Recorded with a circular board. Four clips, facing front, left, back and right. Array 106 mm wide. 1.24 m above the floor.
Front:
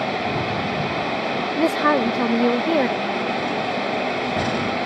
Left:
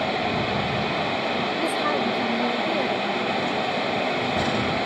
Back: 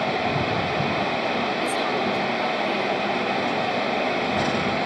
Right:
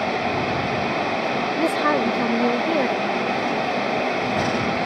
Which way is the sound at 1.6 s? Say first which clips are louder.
Right 6 dB, front 6 dB; 25° right.